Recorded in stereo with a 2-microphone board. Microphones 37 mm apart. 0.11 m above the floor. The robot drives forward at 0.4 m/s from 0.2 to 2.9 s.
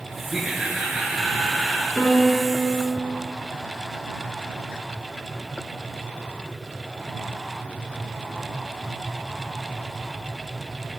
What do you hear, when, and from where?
0.3 s laughter: 15° right (ahead or behind), 1.7 m; by 1.9 s 10° right (ahead or behind), 2 m
2.0 s a piano: 35° left (ahead or behind), 3 m; by 2.7 s 40° left (ahead or behind), 2.5 m